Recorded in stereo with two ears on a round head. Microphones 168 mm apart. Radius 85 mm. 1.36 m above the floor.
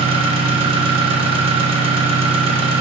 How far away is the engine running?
About 1.0 m.